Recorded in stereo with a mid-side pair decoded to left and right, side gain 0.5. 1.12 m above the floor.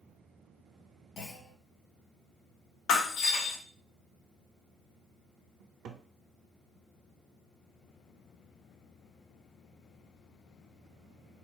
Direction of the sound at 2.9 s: 70° left.